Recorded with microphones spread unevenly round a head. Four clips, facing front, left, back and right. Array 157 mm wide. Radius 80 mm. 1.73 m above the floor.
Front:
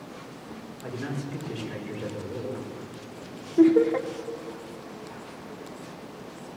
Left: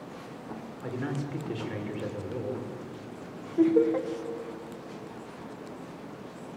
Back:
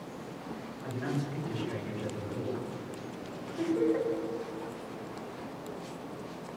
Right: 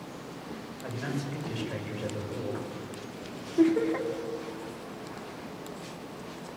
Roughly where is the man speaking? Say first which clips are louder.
Left 1 dB, front 1 dB; ahead left.